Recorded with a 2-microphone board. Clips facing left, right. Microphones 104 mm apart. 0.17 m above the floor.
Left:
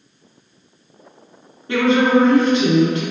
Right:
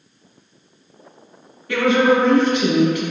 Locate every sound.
1.7 s a woman speaking: 30° left (ahead or behind), 1.2 m